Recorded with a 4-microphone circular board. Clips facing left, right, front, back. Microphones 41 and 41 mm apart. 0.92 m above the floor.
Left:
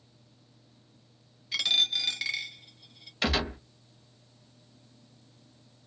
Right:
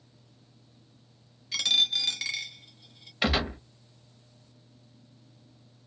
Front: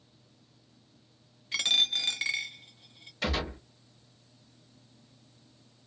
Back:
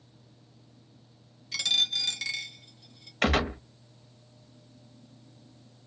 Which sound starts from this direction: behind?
A gunshot, at 3.2 s.